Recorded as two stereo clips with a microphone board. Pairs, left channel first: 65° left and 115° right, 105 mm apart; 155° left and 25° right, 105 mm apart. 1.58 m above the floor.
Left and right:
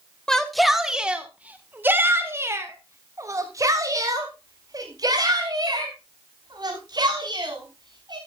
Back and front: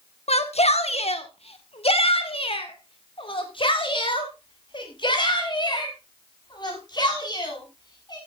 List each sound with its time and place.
0.3 s a shout: 155° left, 1.6 m; by 8.2 s 155° right, 6 m